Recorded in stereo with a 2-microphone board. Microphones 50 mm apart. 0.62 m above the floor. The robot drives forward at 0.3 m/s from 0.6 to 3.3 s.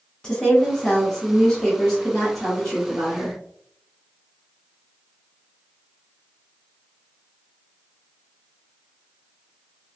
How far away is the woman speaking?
About 0.8 m.